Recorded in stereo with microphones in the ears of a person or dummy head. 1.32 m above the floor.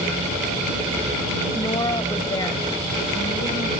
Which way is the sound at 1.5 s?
25° left (ahead or behind).